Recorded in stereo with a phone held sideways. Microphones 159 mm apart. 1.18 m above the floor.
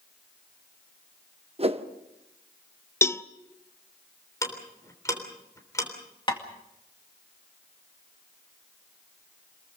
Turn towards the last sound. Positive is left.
turn(degrees=30)  # may be behind; listen again after turning